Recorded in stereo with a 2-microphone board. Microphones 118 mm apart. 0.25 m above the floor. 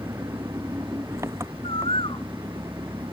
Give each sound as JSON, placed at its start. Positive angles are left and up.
{"t": 0.0, "sound": "an engine running", "side_deg": -25}
{"t": 1.6, "sound": "a bird", "side_deg": 50}